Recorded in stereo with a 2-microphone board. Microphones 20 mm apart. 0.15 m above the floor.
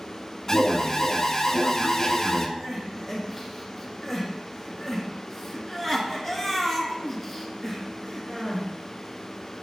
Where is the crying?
Centre (ahead or behind), 2.5 m.